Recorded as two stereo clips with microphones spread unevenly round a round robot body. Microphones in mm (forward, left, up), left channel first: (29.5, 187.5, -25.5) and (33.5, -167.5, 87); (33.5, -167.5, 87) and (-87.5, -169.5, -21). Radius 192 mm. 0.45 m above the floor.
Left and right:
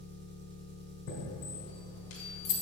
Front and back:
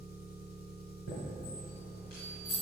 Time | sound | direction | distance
0.0 | an engine running | 20° right | 1.0 m
1.1 | a chime | 55° left | 2.5 m